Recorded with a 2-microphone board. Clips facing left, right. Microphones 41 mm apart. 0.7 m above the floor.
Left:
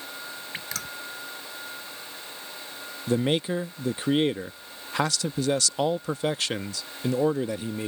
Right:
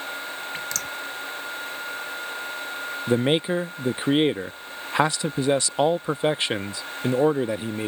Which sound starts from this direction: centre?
Dripping, at 0.5 s.